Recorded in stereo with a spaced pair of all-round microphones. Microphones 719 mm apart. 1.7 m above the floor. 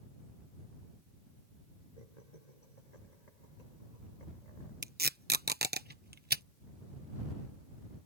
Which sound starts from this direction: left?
Laughter, at 2.0 s.